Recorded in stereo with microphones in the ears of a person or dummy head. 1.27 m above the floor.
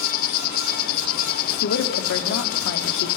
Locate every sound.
0.0 s an insect: 50° left (ahead or behind), 0.9 m
1.6 s a woman speaking: 65° left (ahead or behind), 3 m